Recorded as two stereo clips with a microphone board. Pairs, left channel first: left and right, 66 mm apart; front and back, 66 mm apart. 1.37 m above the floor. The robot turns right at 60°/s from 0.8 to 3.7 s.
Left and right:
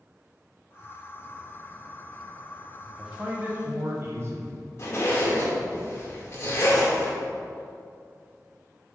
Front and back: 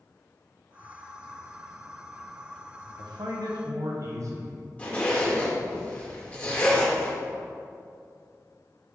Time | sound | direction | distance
3.0 | a man speaking | straight behind | 0.9 m
4.8 | a zipper | 60° left | 1.3 m